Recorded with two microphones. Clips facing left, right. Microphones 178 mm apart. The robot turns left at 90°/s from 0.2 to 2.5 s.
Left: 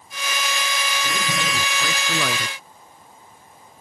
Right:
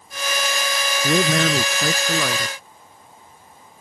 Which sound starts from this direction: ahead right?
A man speaking, at 1.0 s.